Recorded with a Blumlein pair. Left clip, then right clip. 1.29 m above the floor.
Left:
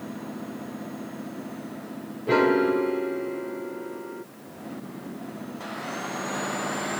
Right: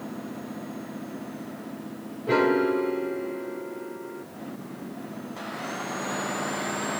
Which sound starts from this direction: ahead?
A piano, at 2.3 s.